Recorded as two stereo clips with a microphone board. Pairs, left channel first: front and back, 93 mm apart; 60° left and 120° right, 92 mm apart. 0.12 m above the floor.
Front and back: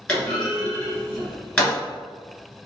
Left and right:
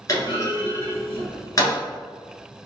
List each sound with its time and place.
0.1 s a clunk: 70° left, 1.4 m